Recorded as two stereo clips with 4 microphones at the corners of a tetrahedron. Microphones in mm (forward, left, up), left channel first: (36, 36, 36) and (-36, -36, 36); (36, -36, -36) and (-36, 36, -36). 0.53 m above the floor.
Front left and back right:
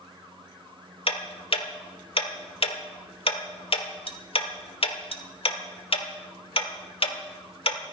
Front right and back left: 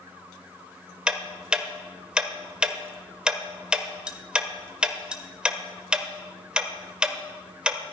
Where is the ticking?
55° left, 1.2 m.